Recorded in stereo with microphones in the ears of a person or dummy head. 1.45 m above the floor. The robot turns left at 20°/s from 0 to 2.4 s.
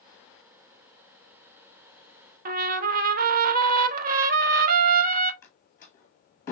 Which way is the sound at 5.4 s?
20° left (ahead or behind).